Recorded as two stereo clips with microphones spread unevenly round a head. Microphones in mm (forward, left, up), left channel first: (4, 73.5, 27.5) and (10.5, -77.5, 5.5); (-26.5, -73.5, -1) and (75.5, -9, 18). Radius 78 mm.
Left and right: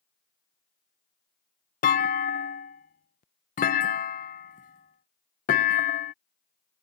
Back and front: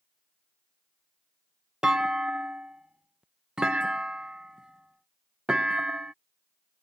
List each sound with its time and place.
1.8 s a clunk: 120° left